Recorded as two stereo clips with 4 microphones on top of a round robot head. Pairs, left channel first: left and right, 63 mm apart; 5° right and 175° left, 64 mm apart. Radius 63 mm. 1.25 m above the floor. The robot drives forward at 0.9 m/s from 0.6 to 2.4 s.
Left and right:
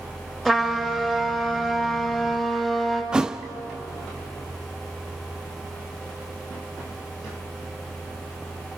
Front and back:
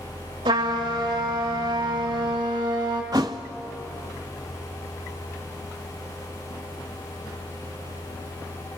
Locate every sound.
0.5 s a trumpet: straight behind, 2.5 m
3.1 s a thud: 160° right, 0.6 m